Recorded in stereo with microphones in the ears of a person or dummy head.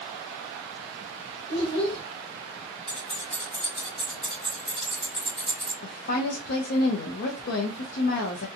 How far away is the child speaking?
About 1.1 m.